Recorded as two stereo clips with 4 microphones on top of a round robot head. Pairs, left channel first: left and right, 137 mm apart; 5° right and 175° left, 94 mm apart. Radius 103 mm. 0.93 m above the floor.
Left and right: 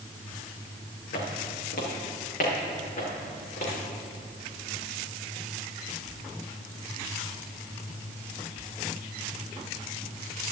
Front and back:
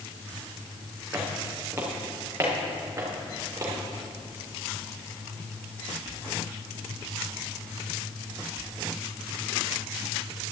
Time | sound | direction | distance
1.1 | footsteps | 105° left | 5 m